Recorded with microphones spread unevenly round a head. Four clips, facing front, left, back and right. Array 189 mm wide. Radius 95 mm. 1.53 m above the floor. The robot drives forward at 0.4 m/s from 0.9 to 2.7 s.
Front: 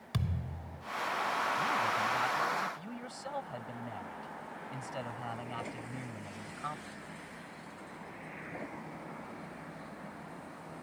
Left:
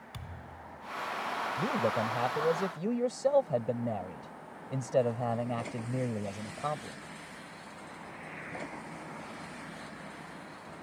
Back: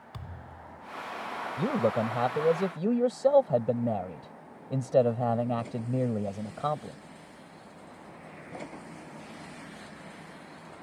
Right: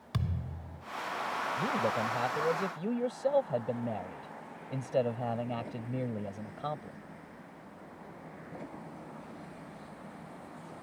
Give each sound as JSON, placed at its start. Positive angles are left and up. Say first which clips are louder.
{"t": 0.1, "sound": "a thud", "louder": "right 10 dB, front 8 dB", "azimuth_deg": -50}
{"t": 1.6, "sound": "a man speaking", "louder": "left 2 dB, back 5 dB", "azimuth_deg": 170}